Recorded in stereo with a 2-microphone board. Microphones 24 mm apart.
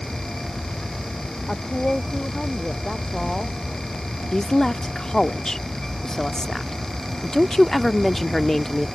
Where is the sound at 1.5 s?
15° left (ahead or behind).